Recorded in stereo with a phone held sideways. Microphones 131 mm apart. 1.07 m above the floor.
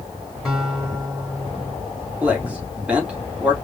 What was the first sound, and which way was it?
A guitar, centre (ahead or behind).